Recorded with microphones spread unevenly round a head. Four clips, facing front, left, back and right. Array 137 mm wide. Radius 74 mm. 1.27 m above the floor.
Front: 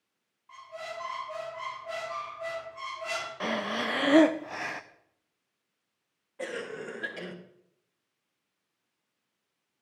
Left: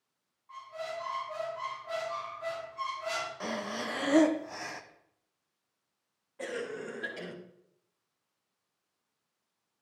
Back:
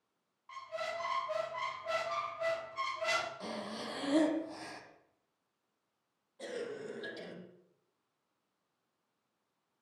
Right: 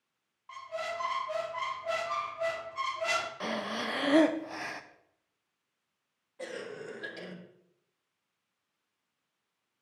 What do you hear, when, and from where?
0.5 s a squeak: 120° right, 1.1 m
3.4 s breathing: 10° right, 0.6 m
6.4 s a cough: 5° left, 1.3 m